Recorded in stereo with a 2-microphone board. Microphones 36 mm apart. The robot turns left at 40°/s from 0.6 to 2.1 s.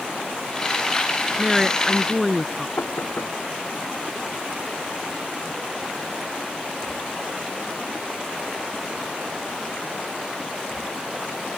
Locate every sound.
1.4 s a woman speaking: 5° right (ahead or behind); by 2.7 s 5° left (ahead or behind)
2.8 s knocking: 75° left (ahead or behind)